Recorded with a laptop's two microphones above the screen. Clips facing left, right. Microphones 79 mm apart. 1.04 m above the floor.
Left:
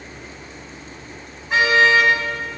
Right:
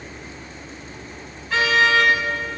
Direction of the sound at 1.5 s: 20° left (ahead or behind).